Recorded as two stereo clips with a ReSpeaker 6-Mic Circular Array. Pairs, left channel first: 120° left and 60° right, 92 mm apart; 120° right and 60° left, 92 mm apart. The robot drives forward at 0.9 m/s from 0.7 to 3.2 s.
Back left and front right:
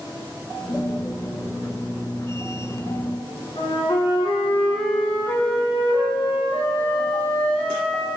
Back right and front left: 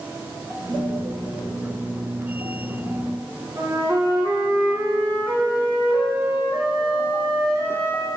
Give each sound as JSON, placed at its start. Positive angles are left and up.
{"t": 3.6, "sound": "a flute", "azimuth_deg": 120, "distance_m": 1.4}